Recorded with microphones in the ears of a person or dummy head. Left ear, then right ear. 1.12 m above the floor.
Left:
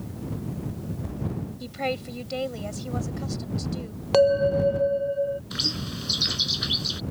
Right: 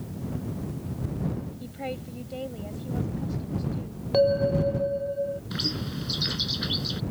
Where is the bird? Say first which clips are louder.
Left 3 dB; 20° left (ahead or behind).